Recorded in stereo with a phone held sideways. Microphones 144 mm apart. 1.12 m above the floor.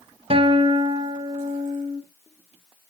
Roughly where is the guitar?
Right.